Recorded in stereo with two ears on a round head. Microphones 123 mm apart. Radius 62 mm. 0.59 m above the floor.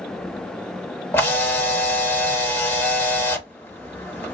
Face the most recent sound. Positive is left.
turn(degrees=15)  # may be behind; listen again after turning